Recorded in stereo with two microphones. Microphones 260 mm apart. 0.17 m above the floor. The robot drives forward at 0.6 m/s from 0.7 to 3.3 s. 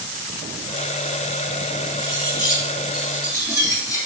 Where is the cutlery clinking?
15° left (ahead or behind), 3.5 m.